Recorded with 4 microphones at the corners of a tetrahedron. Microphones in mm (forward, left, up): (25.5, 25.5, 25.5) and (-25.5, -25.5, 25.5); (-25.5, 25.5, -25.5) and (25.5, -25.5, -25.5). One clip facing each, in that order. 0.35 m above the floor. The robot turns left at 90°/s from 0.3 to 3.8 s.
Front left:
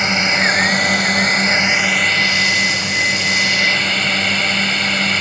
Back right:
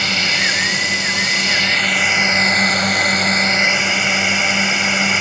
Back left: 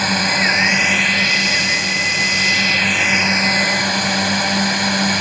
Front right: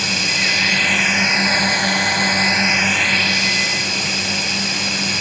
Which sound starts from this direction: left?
A drone, at 0.0 s.